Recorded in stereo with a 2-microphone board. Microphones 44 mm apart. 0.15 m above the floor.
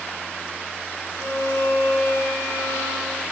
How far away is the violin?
About 6.5 m.